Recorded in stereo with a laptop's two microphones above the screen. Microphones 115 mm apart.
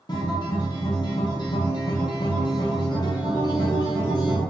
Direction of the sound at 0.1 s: 35° left (ahead or behind).